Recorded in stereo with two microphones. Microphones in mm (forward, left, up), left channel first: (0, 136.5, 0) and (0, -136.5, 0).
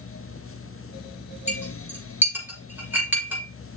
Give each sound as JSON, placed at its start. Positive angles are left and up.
{"t": 1.5, "sound": "a clink", "side_deg": -10, "distance_m": 5.5}